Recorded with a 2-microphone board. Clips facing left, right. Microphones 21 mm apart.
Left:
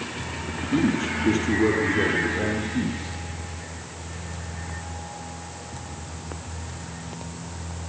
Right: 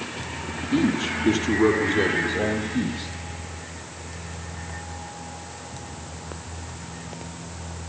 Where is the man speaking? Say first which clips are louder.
Even; 10° right (ahead or behind), 4.5 m; by 3.1 s 55° right (ahead or behind), 5 m.